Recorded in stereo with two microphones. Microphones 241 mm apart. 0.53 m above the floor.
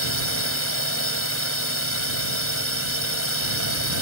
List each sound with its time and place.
0.0 s a drone: 65° left (ahead or behind)